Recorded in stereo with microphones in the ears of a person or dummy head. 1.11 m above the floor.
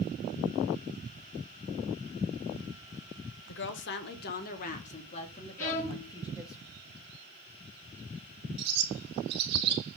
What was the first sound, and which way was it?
A woman speaking, 60° left (ahead or behind).